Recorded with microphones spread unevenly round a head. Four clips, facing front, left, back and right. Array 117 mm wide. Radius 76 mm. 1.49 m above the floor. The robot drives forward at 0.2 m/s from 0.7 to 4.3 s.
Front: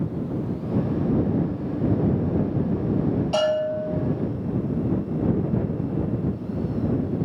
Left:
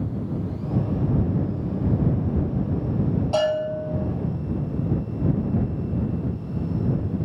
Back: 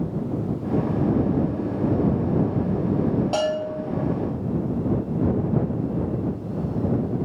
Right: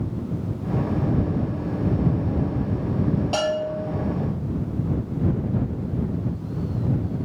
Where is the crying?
I don't hear crying.